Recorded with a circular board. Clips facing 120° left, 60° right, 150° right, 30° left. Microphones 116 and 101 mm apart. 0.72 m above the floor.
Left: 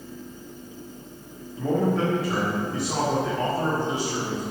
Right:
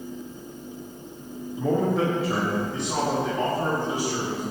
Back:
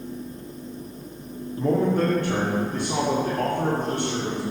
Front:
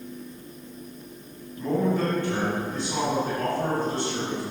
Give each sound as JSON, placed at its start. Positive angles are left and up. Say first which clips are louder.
{"t": 1.6, "sound": "a man speaking", "louder": "even, back 3 dB", "azimuth_deg": -130, "distance_m": 1.7}